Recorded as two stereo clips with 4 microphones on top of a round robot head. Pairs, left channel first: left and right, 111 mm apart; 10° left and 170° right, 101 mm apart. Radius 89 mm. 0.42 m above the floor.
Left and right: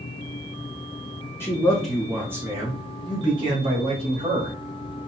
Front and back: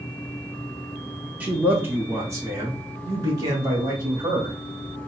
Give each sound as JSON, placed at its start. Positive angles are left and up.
{"t": 1.4, "sound": "a man speaking", "azimuth_deg": 135, "distance_m": 0.8}